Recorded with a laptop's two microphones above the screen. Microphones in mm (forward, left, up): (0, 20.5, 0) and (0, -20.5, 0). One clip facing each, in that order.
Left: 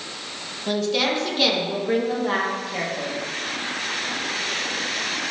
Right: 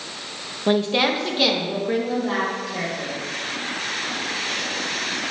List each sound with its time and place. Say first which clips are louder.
0.7 s a woman speaking: right 3 dB; 35° right (ahead or behind), 1.0 m; by 3.1 s 25° left (ahead or behind), 2.0 m